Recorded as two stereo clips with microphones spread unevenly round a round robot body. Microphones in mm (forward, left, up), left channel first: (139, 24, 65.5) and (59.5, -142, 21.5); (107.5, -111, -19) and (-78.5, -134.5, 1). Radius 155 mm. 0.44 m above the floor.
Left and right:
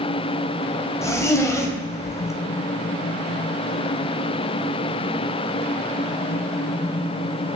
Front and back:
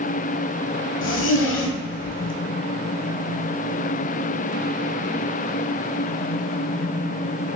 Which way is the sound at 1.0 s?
10° right.